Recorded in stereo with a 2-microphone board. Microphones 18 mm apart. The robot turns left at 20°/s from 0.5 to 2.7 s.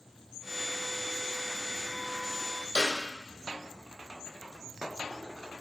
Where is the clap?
60° left (ahead or behind), 2.5 m.